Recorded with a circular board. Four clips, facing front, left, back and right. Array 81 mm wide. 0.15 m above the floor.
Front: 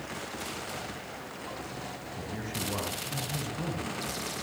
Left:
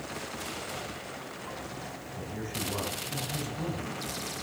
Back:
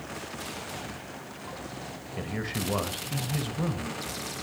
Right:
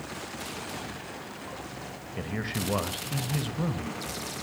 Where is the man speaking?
125° right, 1.7 m.